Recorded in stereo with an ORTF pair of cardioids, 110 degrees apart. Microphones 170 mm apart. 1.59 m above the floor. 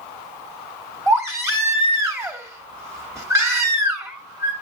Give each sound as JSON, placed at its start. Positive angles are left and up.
{"t": 1.1, "sound": "a baby crying", "azimuth_deg": -15, "distance_m": 2.5}